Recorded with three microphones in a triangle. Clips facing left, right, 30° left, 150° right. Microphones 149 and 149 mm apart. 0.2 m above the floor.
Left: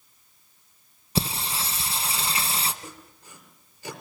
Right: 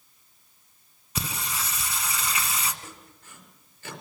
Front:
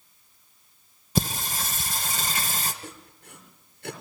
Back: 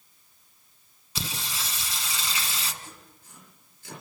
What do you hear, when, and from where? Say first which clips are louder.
1.1 s singing: left 5 dB, front 9 dB; 40° left, 1.4 m
2.8 s sawing: left 2 dB, front 5 dB; 15° left, 4.5 m